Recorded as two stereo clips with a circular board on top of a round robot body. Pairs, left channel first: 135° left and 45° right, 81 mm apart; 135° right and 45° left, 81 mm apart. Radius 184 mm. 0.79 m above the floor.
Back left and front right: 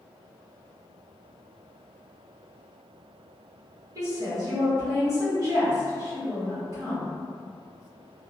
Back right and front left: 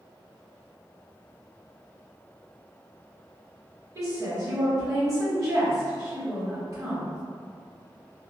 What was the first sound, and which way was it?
A woman speaking, straight ahead.